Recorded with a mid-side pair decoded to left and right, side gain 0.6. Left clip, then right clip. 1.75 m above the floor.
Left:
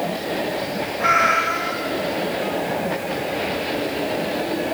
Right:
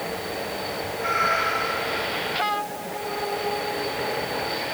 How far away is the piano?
No piano in this recording.